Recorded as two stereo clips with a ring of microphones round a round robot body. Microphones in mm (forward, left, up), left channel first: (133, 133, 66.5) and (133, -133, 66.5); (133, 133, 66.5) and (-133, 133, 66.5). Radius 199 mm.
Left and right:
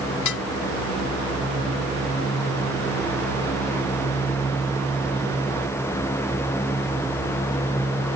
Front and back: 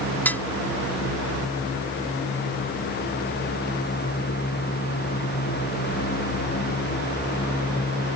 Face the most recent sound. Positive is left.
turn(degrees=85)